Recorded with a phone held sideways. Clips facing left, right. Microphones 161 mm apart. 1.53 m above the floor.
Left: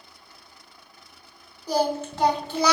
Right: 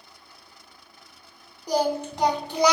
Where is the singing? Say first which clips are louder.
Even; 15° right (ahead or behind), 0.7 m.